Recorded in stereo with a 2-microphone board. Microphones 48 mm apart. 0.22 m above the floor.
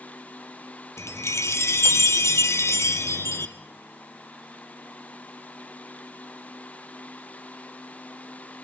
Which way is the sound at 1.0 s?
85° left.